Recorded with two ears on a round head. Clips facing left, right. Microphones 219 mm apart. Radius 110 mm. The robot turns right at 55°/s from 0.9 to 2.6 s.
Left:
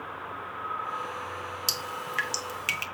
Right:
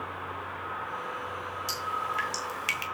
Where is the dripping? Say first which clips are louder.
Even; 55° left (ahead or behind), 1.5 m; by 2.9 s 10° left (ahead or behind), 1.5 m.